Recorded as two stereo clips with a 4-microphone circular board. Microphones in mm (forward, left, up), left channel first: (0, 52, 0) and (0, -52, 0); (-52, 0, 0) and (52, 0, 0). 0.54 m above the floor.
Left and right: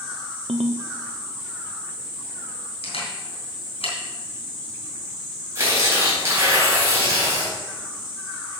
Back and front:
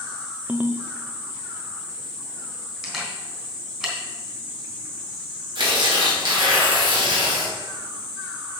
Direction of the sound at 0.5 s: 75° right.